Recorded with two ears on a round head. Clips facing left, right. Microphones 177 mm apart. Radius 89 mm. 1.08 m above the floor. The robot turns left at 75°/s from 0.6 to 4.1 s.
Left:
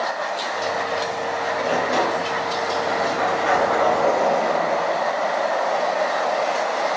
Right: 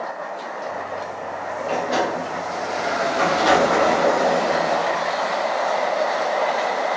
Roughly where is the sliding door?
Ahead.